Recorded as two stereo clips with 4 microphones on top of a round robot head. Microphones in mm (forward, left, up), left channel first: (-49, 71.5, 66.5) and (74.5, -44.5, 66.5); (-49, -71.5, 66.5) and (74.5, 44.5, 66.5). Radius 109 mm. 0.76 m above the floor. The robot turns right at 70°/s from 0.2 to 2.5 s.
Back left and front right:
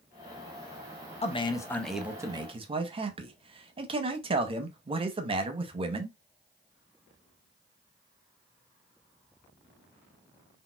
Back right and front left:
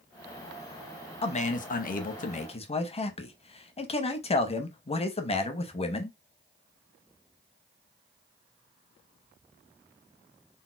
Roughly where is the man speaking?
Behind.